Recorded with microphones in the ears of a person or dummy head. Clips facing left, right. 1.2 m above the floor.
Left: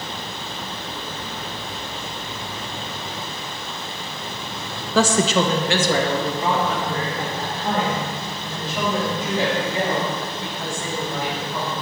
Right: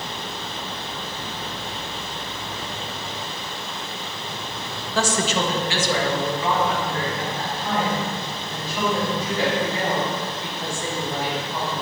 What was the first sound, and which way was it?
A woman speaking, 60° left (ahead or behind).